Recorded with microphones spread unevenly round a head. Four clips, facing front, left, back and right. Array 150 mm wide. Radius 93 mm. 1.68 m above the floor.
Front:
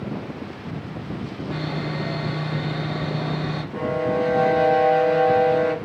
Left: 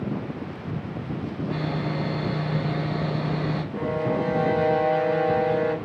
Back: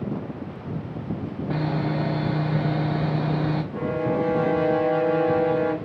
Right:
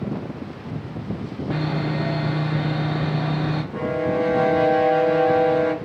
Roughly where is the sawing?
Behind right.